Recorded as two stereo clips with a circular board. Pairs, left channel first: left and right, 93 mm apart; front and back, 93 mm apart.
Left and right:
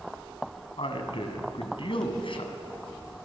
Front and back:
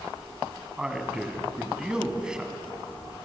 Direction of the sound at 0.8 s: 100° left.